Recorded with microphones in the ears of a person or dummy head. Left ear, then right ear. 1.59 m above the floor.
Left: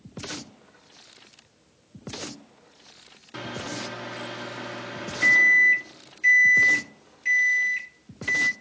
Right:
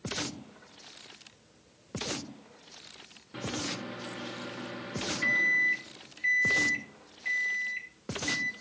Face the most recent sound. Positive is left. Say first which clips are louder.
# left 2 dB
turn(degrees=30)  # may be behind; listen again after turning